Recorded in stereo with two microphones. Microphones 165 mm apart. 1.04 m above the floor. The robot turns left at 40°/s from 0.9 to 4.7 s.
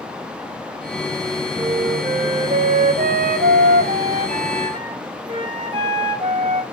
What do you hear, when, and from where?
1.6 s a flute: 25° right, 2.5 m; by 6.6 s 150° right, 2.5 m